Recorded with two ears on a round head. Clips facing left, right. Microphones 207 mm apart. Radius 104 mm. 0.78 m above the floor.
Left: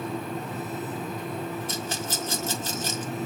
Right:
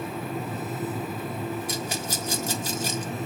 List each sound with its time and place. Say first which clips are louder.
1.7 s a rattle: right 1 dB; 10° right (ahead or behind), 1.6 m